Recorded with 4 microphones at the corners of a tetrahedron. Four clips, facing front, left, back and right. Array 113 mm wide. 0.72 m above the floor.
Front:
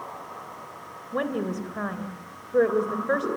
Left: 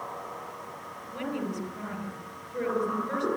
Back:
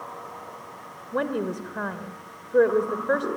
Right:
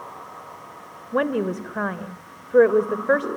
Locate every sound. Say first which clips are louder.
1.1 s a woman speaking: right 11 dB, back 1 dB; 100° right, 2.5 m